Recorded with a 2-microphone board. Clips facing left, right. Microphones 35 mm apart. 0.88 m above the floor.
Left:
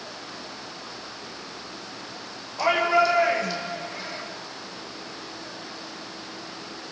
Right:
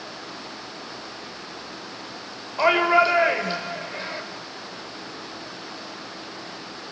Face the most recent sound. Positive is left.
turn(degrees=-40)  # may be behind; listen again after turning